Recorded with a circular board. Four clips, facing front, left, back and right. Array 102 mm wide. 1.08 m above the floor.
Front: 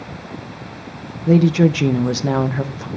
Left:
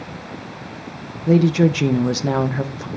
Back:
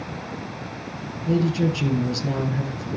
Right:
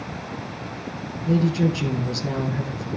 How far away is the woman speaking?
About 0.9 m.